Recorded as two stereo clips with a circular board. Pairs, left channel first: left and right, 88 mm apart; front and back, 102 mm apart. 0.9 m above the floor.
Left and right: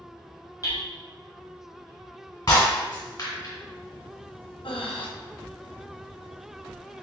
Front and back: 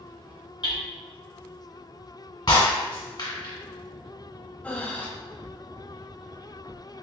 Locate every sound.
0.6 s hammering: 40° left, 1.3 m
2.5 s breaking glass: 45° left, 1.9 m
4.6 s breathing: 75° left, 0.6 m